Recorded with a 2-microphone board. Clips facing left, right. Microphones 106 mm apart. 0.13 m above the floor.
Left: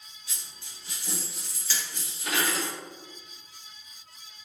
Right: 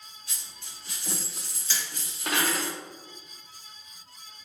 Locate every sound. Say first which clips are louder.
0.3 s a dropped coin: left 2 dB; 50° right (ahead or behind), 1.8 m
1.7 s hammering: even; 25° right (ahead or behind), 1.7 m